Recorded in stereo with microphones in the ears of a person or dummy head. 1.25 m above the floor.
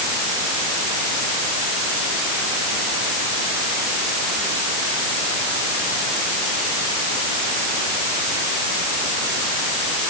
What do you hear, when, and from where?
Only background noise.